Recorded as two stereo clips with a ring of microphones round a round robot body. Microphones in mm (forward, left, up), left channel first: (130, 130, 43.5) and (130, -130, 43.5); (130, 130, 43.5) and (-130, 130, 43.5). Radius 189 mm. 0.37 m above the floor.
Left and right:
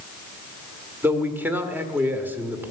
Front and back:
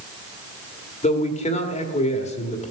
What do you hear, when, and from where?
1.0 s a man speaking: 15° right, 1.5 m